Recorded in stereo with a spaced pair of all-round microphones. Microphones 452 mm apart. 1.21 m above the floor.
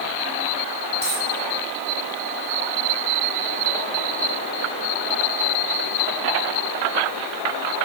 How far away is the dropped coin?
About 3 m.